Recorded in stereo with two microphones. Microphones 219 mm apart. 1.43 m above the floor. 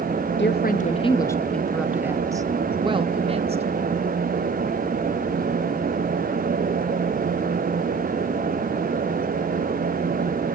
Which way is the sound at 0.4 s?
55° left (ahead or behind).